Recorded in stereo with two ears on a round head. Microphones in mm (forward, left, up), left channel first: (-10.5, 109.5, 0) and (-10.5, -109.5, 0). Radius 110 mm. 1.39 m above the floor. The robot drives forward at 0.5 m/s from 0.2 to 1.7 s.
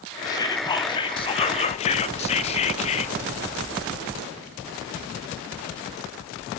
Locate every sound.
0.3 s whispering: 15° left (ahead or behind), 1.7 m; by 3.1 s 25° left (ahead or behind), 1.0 m